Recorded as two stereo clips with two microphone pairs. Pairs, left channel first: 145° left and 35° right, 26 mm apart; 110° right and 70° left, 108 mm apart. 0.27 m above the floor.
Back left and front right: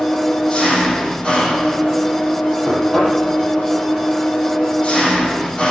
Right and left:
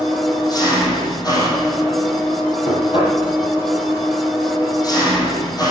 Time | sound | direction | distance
0.0 | an engine running | 160° right | 6 m
2.6 | knocking | 140° right | 7 m